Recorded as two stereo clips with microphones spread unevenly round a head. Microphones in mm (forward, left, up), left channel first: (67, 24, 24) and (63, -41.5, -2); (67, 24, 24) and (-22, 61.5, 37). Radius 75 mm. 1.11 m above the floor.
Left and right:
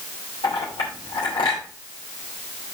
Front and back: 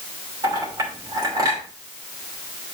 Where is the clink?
105° left, 3 m.